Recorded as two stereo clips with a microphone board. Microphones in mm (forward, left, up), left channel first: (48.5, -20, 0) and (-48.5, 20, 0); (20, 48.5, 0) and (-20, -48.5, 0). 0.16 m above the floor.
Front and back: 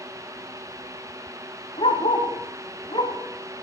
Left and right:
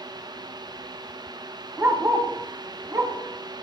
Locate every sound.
1.8 s a dog barking: 50° right, 7.5 m; by 3.1 s 60° right, 6 m